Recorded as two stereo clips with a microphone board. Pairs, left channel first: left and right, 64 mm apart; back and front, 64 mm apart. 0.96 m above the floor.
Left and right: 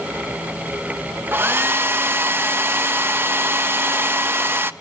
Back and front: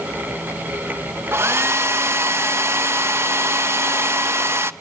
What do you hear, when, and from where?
1.3 s a hair dryer: 40° right, 0.8 m